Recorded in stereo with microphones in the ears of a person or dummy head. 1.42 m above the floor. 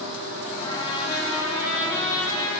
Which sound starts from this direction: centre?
A trumpet, at 0.6 s.